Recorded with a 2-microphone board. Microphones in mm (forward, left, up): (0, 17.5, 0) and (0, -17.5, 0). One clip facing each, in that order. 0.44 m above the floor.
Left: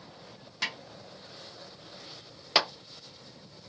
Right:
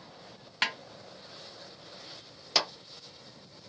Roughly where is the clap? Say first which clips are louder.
Left 3 dB; left.